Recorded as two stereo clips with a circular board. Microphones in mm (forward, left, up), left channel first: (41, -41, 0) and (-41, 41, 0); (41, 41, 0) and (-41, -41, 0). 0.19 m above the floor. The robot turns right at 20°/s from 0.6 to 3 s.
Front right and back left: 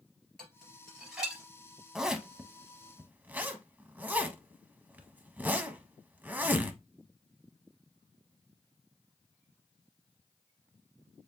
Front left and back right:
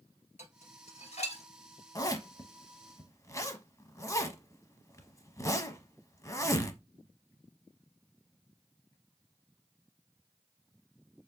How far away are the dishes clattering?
About 2.5 m.